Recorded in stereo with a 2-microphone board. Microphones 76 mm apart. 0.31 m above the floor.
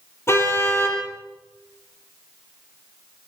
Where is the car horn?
35° left (ahead or behind), 5.5 m.